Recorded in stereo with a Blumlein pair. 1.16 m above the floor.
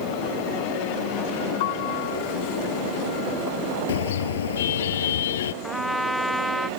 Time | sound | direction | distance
1.6 | a piano | 50° left | ?
3.9 | a car horn | 60° left | ?
5.6 | a trumpet | straight ahead | ?